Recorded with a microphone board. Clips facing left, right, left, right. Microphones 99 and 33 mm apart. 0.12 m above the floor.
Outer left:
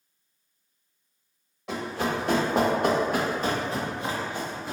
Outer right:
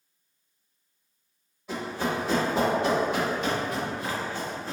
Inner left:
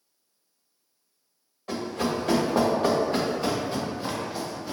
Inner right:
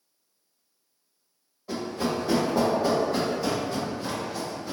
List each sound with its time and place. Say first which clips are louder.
1.7 s running footsteps: outer left 1 dB, inner left 1 dB; 75° left (ahead or behind), 1.5 m; by 4.7 s 5° left (ahead or behind), 1.4 m